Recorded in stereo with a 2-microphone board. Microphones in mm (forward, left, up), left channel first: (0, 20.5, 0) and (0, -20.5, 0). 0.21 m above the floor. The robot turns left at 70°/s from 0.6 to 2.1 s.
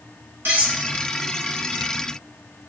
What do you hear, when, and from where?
0.5 s cutlery clinking: 65° right (ahead or behind), 1.5 m